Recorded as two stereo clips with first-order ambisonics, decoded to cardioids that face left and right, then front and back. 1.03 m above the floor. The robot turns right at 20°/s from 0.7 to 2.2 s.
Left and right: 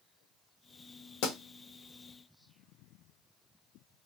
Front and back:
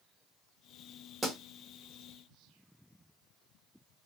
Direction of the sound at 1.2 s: 105° left.